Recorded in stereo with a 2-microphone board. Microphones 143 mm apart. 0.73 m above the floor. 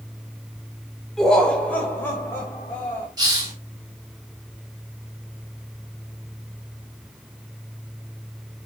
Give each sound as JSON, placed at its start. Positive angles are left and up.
{"t": 1.2, "sound": "laughter", "side_deg": 5, "distance_m": 2.5}
{"t": 3.2, "sound": "a hiss", "side_deg": -25, "distance_m": 3.5}